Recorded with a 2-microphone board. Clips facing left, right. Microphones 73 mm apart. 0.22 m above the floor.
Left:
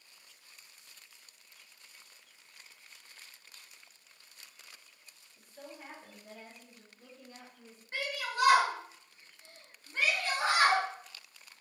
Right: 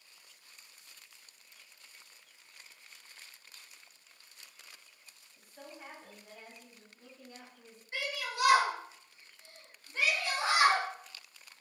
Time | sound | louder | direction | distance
5.4 | a woman speaking | left 1 dB | 5° right (ahead or behind) | 1.2 m
7.9 | a shout | left 1 dB | 35° left (ahead or behind) | 1.5 m